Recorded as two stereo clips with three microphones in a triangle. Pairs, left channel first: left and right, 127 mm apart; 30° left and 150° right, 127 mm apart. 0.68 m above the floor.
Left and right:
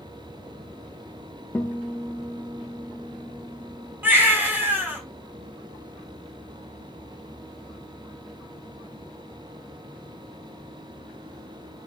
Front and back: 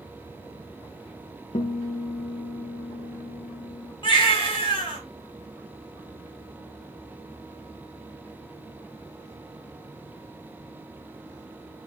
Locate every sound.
1.5 s a guitar: 15° left, 0.8 m
4.0 s a baby crying: 15° right, 1.4 m